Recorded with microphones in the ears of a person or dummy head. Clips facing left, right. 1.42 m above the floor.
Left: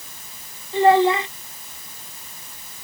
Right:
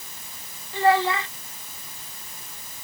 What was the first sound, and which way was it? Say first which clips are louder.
A child speaking: left 5 dB; 20° left (ahead or behind).